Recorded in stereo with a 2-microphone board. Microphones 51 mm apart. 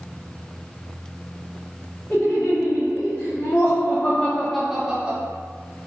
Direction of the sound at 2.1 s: 75° left (ahead or behind).